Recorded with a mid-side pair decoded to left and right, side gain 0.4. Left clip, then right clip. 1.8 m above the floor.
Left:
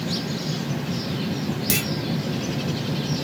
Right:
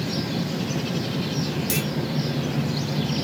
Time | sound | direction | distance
1.7 | a clunk | 40° left | 0.6 m